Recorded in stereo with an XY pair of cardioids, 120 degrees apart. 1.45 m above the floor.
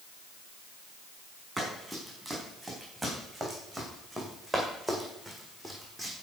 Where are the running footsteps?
10° right, 7 m; by 6.2 s 5° left, 4.5 m.